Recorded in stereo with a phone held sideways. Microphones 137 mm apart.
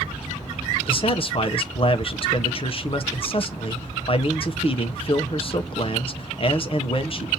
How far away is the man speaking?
About 0.8 m.